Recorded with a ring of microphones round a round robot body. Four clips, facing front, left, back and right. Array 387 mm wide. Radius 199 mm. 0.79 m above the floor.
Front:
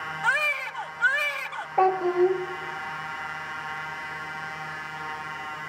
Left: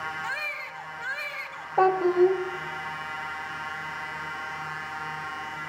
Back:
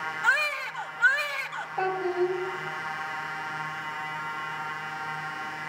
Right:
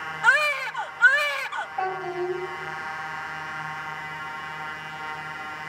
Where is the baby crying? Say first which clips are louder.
Right 12 dB, even; 90° right, 1.4 m.